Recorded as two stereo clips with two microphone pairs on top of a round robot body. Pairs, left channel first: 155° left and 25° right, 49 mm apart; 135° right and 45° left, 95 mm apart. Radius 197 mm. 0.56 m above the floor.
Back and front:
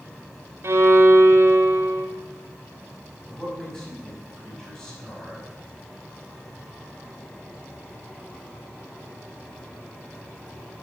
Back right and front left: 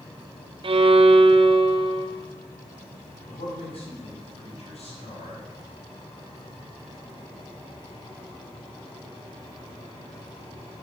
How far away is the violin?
About 0.8 m.